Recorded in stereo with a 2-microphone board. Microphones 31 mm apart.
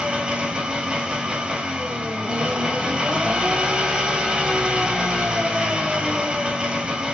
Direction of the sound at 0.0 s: 30° right (ahead or behind).